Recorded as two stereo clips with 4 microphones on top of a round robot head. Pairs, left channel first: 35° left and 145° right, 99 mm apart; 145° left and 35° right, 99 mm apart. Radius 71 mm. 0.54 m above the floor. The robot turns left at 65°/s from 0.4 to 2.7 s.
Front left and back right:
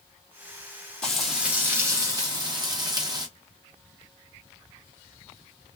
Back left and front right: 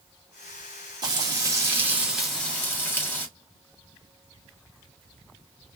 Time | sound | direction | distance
1.0 | frying | 45° right | 1.7 m